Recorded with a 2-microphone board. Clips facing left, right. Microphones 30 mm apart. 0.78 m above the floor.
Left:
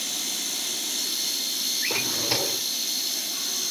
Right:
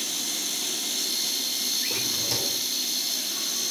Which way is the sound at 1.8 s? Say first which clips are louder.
Left 2 dB; 30° left (ahead or behind).